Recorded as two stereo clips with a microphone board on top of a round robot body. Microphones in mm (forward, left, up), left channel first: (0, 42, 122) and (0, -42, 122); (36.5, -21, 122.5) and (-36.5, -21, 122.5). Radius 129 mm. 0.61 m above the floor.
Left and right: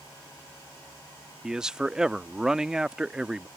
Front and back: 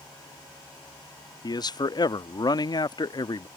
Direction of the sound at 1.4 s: 10° right.